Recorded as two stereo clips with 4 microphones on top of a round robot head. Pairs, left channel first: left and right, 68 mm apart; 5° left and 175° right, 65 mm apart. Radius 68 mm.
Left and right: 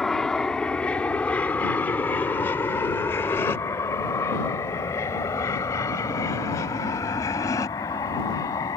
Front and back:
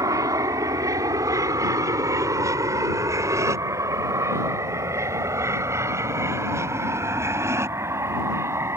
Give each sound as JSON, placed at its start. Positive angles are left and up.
{"t": 0.0, "sound": "an aircraft", "azimuth_deg": 175}